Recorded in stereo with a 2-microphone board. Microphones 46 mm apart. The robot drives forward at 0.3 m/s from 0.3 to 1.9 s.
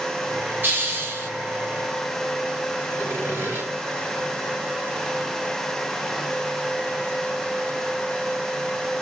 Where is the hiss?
45° right (ahead or behind), 5 m; by 1.3 s 50° right (ahead or behind), 5 m.